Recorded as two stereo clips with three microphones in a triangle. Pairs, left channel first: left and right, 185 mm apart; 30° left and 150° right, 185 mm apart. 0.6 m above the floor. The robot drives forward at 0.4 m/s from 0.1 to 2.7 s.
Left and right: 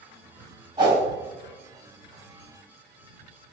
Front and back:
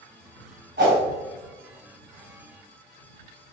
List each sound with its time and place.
0.8 s a whoosh: 155° right, 1.7 m